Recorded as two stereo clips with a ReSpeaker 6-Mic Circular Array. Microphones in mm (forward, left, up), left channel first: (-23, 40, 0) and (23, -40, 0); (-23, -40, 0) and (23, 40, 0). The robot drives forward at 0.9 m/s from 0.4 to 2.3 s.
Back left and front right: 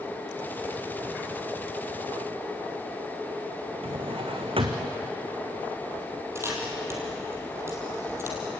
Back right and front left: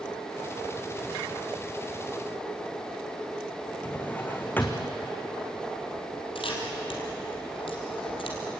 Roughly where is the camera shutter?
Behind right.